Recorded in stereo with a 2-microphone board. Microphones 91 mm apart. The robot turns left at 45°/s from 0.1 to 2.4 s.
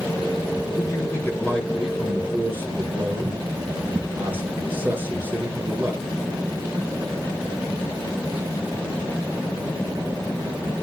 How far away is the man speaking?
About 2.5 m.